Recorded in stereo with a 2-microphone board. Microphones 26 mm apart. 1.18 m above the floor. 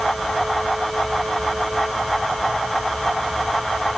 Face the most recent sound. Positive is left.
No sound to turn to.